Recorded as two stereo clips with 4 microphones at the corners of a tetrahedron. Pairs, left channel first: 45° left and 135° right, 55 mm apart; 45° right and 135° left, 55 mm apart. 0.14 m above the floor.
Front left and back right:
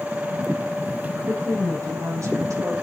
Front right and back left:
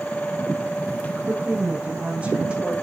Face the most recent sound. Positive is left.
turn(degrees=-150)